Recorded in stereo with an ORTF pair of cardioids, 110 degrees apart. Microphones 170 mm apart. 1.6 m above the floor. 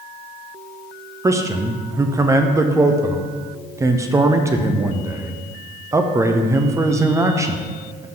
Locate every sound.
1.2 s a man speaking: 20° right, 0.7 m